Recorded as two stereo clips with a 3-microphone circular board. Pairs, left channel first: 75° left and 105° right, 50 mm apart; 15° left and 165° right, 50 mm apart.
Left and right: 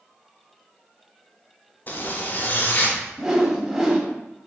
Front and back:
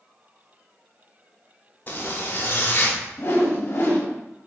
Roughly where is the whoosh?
Ahead right.